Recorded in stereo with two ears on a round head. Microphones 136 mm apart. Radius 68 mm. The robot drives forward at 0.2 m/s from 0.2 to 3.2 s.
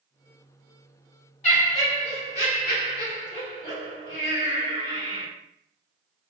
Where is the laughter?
50° left (ahead or behind), 1.8 m; by 5.3 s 40° left (ahead or behind), 2 m.